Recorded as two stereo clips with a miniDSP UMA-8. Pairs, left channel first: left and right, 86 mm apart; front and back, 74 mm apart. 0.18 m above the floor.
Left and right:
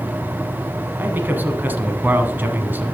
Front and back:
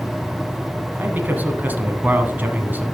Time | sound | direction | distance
1.0 | a man speaking | 135° right | 1.1 m